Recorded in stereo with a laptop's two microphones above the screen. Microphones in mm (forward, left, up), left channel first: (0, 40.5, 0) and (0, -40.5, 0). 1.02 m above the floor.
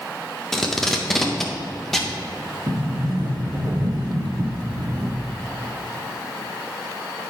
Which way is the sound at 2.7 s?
60° right (ahead or behind).